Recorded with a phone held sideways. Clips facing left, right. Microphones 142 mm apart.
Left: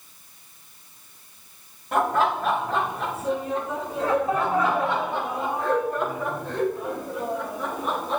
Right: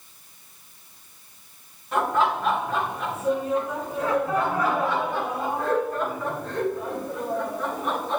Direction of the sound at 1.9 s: 45° left (ahead or behind).